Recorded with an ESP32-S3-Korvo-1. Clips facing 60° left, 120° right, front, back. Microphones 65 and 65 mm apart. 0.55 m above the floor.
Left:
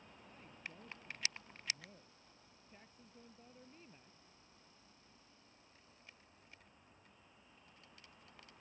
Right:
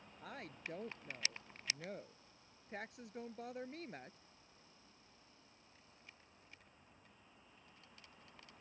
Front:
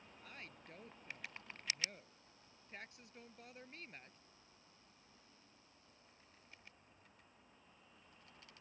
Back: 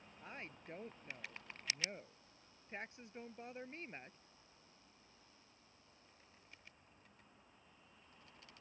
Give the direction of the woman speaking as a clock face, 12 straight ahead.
4 o'clock.